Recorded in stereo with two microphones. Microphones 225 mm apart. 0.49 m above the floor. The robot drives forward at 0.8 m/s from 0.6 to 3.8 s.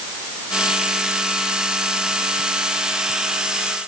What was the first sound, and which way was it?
Only background noise.